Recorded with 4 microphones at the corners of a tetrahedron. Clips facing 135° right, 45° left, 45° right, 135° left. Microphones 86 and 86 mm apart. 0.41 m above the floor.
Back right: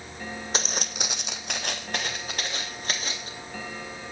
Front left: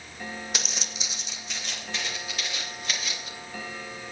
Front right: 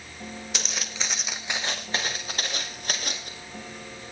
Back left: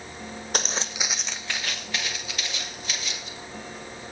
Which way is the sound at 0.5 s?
175° left.